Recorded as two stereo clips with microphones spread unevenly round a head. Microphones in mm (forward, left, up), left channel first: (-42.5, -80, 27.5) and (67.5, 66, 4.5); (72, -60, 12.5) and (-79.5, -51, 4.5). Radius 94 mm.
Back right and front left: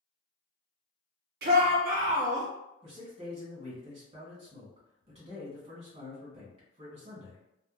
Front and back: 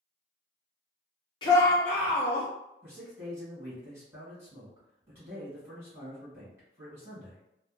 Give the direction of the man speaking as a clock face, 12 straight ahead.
9 o'clock.